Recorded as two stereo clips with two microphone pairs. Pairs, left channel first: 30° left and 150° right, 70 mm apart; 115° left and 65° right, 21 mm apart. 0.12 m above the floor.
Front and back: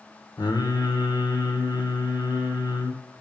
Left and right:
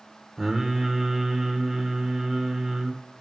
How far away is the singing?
About 2.5 m.